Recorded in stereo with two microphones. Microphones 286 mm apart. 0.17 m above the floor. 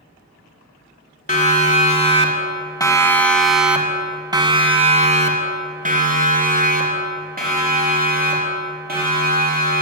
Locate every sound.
1.3 s a siren: 25° left (ahead or behind), 2.5 m; by 9.8 s 35° right (ahead or behind), 5.5 m